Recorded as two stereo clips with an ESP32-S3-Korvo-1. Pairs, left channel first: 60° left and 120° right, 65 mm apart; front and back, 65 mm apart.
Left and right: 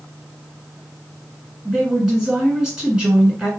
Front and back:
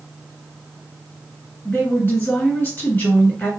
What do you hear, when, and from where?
1.6 s a woman speaking: 45° right, 2 m